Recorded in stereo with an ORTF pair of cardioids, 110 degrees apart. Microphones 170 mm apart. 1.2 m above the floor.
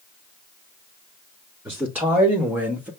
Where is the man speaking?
10° right, 1.8 m.